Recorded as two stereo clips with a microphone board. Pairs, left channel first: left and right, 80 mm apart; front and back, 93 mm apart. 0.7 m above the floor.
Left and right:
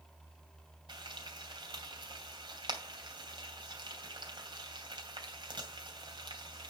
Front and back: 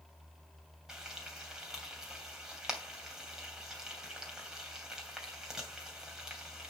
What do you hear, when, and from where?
0.9 s frying: 95° right, 2.5 m